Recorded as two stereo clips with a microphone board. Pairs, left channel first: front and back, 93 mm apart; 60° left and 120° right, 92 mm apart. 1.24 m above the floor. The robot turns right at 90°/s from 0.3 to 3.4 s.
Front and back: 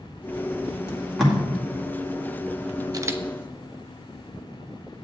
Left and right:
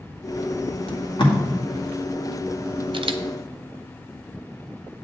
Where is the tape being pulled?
60° left, 1.9 m; by 1.4 s 100° left, 1.9 m.